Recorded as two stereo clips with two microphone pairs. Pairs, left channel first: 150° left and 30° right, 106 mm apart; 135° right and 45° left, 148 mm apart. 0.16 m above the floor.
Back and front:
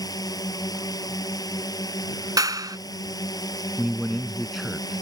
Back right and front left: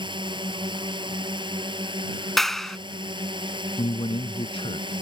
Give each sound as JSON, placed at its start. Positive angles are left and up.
{"t": 0.0, "sound": "a drone", "azimuth_deg": 100}
{"t": 2.4, "sound": "a clap", "azimuth_deg": -45}
{"t": 3.8, "sound": "a man speaking", "azimuth_deg": -120}